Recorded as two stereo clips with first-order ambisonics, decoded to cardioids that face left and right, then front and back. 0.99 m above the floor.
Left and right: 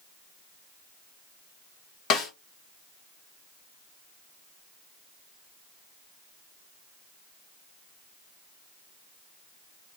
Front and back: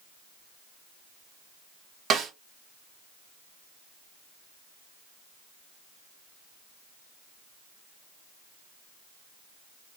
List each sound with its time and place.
2.1 s a snare drum: 125° left, 1.2 m